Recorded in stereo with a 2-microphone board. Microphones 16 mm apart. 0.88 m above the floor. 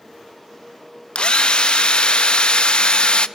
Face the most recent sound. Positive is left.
turn(degrees=65)  # may be behind; listen again after turning